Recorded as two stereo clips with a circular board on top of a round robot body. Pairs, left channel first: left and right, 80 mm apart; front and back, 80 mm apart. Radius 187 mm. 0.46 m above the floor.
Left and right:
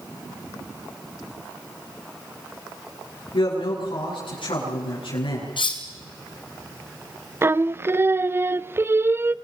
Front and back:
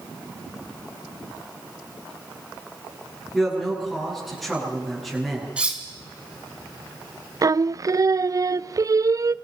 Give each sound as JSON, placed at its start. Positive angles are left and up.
{"t": 3.3, "sound": "a man speaking", "azimuth_deg": 90, "distance_m": 9.0}
{"t": 5.6, "sound": "cutlery clinking", "azimuth_deg": 105, "distance_m": 3.0}
{"t": 7.4, "sound": "singing", "azimuth_deg": -145, "distance_m": 0.7}